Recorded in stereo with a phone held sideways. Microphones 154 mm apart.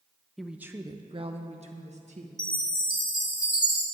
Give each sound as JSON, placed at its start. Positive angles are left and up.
{"t": 0.4, "sound": "a woman speaking", "side_deg": 0, "distance_m": 0.8}
{"t": 2.4, "sound": "a chime", "side_deg": 65, "distance_m": 1.8}